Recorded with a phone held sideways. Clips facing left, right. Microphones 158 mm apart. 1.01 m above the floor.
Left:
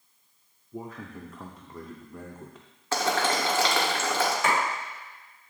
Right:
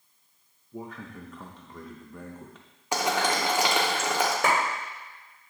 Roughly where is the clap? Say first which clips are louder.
Right 2 dB; right.